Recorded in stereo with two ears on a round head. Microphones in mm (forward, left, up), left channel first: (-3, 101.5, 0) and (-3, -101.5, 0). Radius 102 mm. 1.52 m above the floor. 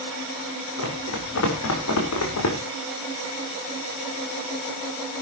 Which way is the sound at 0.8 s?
65° left (ahead or behind).